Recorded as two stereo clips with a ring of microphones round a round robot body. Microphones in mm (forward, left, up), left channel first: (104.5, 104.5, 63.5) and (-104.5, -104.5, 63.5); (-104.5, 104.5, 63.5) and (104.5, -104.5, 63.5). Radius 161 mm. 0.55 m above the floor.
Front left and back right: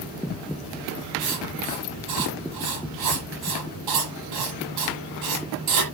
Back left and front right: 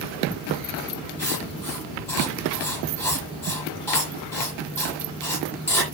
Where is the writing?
145° right, 8.5 m.